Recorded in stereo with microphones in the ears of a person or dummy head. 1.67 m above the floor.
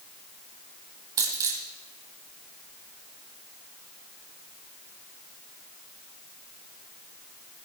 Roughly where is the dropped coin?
Centre.